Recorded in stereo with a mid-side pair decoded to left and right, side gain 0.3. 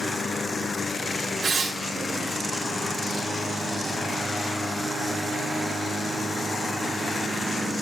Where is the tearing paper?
65° right, 4 m.